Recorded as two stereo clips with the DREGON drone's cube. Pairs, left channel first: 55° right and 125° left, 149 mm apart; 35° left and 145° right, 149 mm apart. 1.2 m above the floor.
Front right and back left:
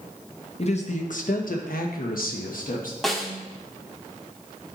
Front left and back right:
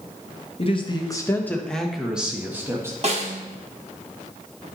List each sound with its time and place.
0.6 s a man speaking: 15° right, 1.0 m; by 2.9 s 75° right, 1.6 m
3.0 s a snare drum: 145° right, 1.0 m